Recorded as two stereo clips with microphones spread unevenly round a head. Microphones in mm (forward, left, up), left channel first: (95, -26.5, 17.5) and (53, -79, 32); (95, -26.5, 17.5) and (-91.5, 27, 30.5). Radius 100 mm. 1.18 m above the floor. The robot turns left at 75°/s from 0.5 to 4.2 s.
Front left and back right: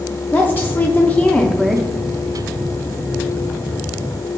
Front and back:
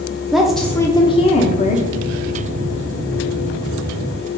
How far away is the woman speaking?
About 0.7 m.